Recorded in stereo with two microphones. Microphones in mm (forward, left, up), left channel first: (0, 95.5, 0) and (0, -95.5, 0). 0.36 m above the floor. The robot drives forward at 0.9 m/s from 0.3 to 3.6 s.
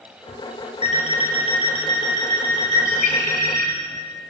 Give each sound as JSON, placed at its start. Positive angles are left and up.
{"t": 0.8, "sound": "an alarm clock", "side_deg": 35, "distance_m": 2.5}
{"t": 2.7, "sound": "a bird", "side_deg": 45, "distance_m": 1.6}